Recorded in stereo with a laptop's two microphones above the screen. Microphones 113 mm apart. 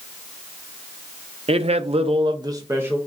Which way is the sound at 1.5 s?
60° right (ahead or behind).